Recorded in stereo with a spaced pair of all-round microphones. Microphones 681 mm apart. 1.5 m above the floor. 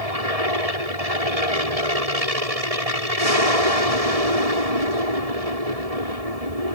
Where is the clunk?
I don't hear a clunk.